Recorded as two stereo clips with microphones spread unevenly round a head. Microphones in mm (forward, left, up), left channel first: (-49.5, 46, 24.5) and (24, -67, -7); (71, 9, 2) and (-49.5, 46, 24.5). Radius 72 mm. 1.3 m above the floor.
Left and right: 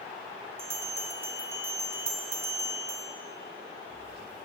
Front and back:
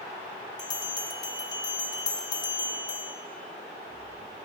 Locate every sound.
0.6 s a bell: 10° right, 0.6 m